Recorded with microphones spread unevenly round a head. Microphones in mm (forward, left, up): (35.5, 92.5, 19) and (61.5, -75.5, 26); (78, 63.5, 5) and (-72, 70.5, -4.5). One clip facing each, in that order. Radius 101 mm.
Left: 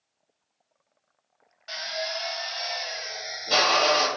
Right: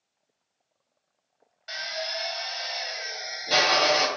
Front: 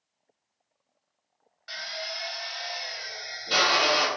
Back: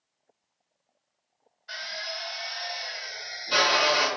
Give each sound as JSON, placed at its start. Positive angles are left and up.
{"t": 1.7, "sound": "a drill", "azimuth_deg": 5, "distance_m": 1.5}